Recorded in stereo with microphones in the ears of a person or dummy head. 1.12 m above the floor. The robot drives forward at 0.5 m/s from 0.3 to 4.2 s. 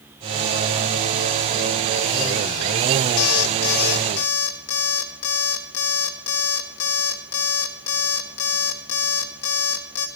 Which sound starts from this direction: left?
An alarm clock, at 3.2 s.